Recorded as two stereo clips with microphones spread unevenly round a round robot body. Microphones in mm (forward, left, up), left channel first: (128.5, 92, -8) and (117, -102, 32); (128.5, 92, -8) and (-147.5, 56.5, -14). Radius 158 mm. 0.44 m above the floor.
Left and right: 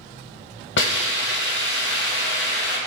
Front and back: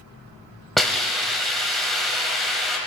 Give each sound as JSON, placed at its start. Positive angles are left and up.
{"t": 0.8, "sound": "a hiss", "azimuth_deg": 95, "distance_m": 1.4}